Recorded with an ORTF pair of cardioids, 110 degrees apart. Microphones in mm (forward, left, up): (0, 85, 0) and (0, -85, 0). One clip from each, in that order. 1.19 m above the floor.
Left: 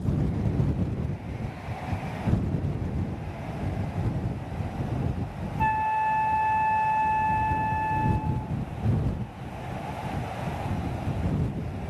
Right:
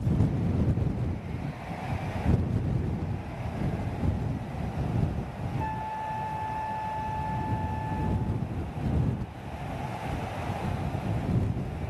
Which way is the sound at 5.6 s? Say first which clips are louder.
Left 10 dB; 50° left.